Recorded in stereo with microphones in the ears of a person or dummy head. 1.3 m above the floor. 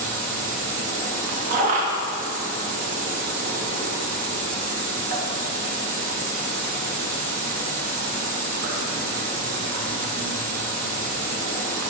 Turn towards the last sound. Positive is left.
turn(degrees=-55)  # may be behind; listen again after turning